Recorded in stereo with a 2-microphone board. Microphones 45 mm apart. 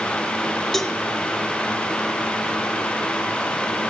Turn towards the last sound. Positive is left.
turn(degrees=10)  # may be behind; listen again after turning